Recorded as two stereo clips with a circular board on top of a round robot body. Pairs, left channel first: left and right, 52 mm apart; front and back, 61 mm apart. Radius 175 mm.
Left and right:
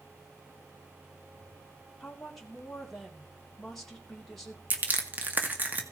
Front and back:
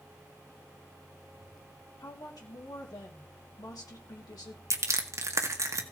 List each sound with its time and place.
2.0 s a woman speaking: 5° left, 3 m
4.7 s crushing: 145° right, 1.9 m